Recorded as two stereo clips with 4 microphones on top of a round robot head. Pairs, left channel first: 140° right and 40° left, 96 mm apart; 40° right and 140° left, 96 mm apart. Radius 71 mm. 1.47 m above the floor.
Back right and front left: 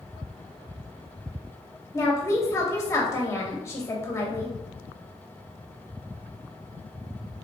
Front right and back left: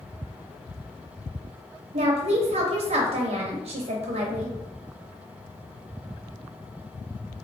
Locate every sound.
1.9 s a woman speaking: 160° left, 0.7 m